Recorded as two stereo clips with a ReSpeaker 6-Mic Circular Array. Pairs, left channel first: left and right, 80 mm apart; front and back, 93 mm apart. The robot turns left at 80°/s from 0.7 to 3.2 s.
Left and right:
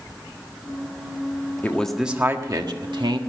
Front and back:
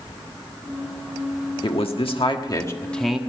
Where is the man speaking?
25° left, 1.5 m; by 3.2 s 100° right, 1.5 m.